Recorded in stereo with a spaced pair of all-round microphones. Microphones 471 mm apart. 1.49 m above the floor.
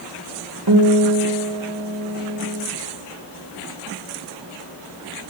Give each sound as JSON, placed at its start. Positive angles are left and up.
{"t": 0.7, "sound": "a guitar", "side_deg": -50, "distance_m": 2.0}